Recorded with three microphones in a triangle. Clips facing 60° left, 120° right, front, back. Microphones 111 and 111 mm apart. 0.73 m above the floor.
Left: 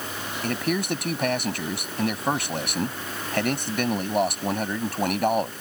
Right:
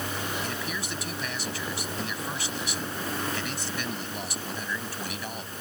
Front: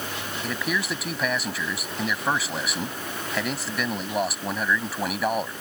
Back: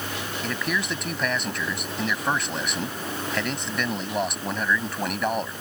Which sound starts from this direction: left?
A man speaking, at 0.4 s.